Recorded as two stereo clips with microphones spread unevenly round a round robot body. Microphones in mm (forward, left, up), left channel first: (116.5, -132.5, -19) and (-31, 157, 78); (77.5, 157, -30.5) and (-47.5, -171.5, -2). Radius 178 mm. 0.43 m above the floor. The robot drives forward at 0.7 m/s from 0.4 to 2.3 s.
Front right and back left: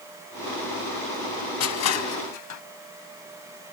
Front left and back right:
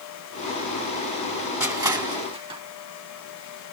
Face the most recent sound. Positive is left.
turn(degrees=-35)